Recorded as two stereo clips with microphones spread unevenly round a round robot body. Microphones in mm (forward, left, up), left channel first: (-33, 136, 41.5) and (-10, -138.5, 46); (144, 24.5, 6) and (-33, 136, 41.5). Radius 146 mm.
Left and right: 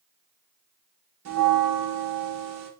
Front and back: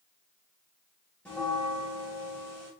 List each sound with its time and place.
1.2 s a bell: 110° right, 0.7 m